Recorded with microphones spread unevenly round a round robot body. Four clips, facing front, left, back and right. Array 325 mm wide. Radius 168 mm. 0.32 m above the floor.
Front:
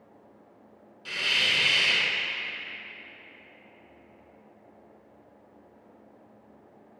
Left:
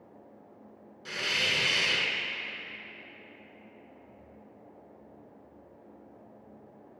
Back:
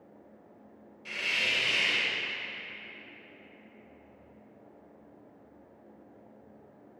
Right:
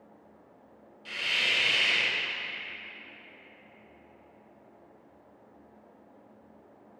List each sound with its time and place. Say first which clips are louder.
1.1 s a hiss: left 1 dB, front 4 dB; 60° left, 0.8 m